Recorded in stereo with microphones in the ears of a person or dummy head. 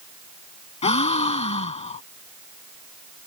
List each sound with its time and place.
0.8 s a gasp: 35° left (ahead or behind)